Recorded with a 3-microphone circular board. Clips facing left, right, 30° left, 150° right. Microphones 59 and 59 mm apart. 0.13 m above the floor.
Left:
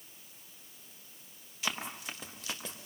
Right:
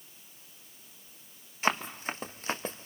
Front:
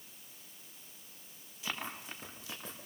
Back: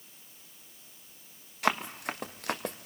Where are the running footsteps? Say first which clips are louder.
Right 8 dB, back 11 dB; 140° right, 3 m.